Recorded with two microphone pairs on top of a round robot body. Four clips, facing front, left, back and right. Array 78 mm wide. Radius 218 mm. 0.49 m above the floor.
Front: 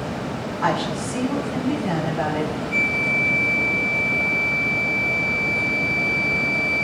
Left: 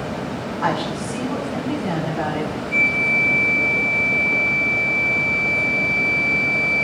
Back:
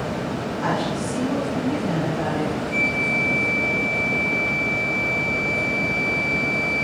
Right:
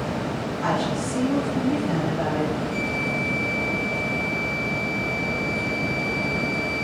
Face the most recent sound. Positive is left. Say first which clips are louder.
# left 5 dB, even
turn(degrees=50)